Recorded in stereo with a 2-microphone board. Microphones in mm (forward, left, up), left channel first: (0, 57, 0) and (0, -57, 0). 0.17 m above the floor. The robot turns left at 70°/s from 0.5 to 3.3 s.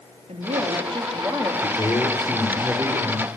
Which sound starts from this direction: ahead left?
A man speaking, at 1.6 s.